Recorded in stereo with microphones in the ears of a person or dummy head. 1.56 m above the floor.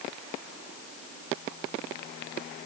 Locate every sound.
Only background noise.